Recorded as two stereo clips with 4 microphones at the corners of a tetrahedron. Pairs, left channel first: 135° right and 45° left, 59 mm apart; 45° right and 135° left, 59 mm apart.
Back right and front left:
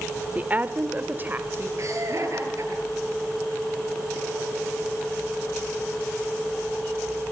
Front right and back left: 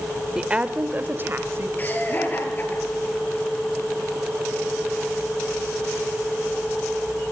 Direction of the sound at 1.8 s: 15° left.